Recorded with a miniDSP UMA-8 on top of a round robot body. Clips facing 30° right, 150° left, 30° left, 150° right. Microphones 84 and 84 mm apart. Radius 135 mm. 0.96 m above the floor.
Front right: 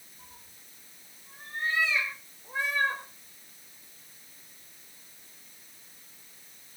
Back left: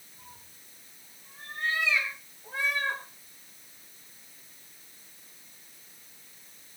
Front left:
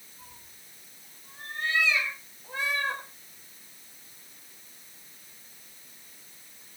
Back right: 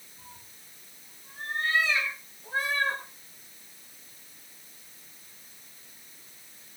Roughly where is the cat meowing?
Behind.